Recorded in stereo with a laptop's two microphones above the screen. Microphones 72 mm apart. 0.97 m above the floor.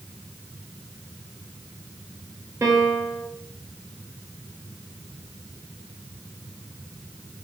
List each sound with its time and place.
2.6 s a piano: 40° right (ahead or behind), 0.5 m